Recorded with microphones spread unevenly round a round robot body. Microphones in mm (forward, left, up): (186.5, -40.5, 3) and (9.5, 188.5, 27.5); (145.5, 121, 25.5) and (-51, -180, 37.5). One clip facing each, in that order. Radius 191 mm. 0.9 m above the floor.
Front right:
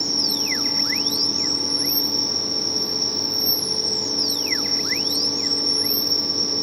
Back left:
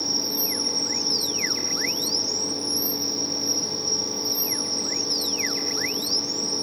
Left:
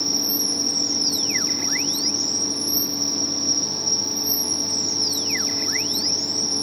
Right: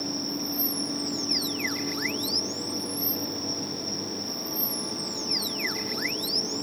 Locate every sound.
0.0 s an insect: 10° left